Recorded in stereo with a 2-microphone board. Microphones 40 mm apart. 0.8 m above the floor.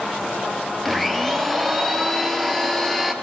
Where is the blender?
Centre (ahead or behind), 3.5 m.